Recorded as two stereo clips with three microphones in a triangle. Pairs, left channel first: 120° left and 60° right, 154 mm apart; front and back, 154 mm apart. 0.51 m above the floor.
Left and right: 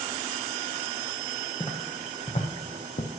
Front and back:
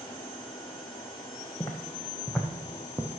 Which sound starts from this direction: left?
Footsteps, at 1.6 s.